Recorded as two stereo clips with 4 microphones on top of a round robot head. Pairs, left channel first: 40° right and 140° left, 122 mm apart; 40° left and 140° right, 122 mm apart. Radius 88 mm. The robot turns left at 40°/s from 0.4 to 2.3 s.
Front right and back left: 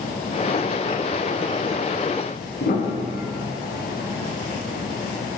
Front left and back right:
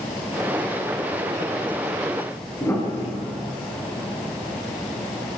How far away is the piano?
About 5.5 m.